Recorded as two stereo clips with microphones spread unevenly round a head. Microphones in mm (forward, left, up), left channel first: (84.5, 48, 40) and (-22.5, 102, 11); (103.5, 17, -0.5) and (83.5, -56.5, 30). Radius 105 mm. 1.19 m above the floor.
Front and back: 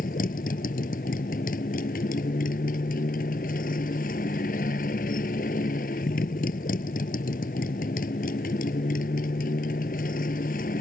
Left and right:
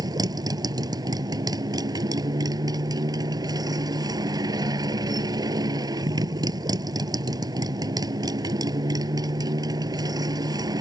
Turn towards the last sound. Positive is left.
turn(degrees=-75)